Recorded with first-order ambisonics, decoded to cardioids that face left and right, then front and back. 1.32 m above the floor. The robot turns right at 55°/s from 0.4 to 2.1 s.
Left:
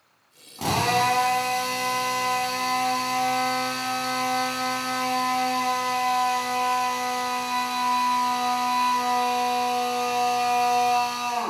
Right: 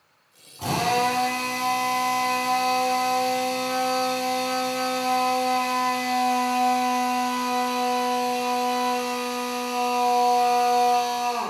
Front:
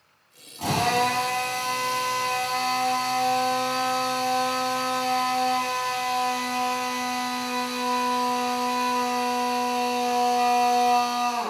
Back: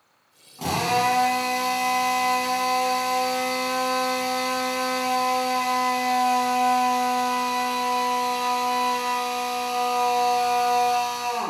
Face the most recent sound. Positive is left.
turn(degrees=-170)